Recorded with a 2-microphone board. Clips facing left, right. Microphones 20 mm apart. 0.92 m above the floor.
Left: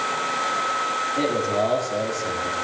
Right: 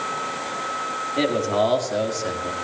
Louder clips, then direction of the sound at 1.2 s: Right 4 dB; 50° right (ahead or behind).